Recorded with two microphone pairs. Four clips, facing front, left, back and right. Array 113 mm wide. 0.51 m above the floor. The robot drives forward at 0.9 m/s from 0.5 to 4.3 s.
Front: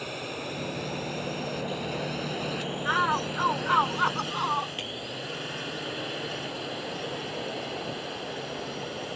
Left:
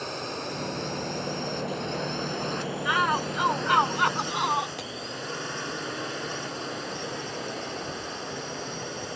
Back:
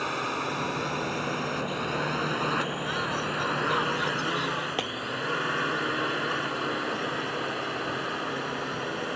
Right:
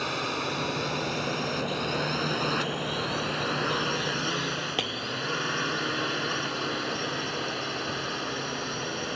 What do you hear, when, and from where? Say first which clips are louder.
0.0 s a drone: right 3 dB, back 6 dB; 165° right
2.9 s a shout: left 6 dB, front 4 dB; 45° left; by 4.7 s 55° left
4.8 s breaking glass: right 5 dB, back 7 dB; 155° right